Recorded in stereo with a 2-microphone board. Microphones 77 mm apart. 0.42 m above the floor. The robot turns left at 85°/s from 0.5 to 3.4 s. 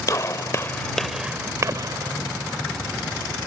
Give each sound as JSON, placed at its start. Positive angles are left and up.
{"t": 0.1, "sound": "a gunshot", "side_deg": 40}